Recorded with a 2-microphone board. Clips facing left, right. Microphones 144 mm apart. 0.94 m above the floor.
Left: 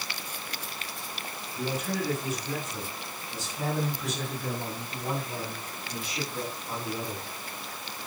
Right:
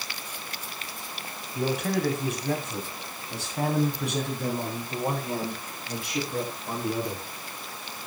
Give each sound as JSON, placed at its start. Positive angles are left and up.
{"t": 1.6, "sound": "a man speaking", "side_deg": -70, "distance_m": 8.0}